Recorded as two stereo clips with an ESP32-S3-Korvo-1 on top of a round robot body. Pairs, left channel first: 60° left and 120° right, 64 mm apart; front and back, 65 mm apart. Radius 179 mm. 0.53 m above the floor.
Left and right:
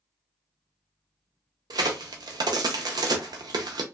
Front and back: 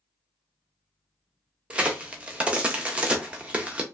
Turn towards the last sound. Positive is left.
turn(degrees=-105)